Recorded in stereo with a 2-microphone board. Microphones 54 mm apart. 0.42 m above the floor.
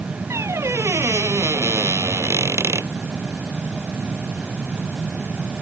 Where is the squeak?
60° right (ahead or behind).